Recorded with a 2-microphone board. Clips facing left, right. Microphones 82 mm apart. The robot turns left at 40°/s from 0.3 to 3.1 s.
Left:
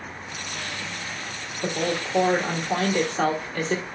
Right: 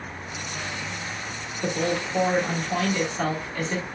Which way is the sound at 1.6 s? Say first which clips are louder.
Right 1 dB; straight behind.